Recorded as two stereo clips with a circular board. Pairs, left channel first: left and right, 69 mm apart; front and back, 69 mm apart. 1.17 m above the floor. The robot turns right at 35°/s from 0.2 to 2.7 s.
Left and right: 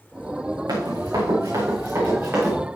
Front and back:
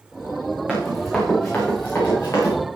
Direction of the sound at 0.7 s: 100° right.